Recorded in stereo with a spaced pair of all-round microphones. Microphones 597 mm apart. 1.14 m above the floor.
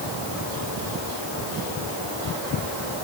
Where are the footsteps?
I don't hear footsteps.